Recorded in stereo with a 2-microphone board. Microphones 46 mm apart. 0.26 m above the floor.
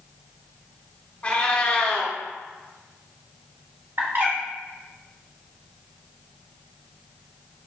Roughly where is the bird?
Right.